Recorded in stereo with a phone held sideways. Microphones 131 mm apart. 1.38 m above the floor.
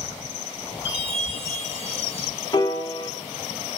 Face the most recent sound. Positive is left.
turn(degrees=35)  # may be behind; listen again after turning